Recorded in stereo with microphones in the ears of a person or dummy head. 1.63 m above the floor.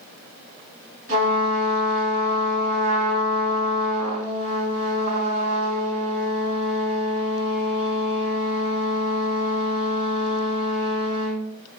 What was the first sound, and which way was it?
A trumpet, 45° right (ahead or behind).